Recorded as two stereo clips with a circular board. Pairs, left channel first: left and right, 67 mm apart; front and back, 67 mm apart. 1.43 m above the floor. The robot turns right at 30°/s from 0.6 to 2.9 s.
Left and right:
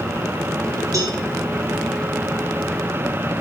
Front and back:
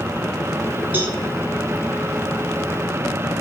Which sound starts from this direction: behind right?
A cowbell, at 0.9 s.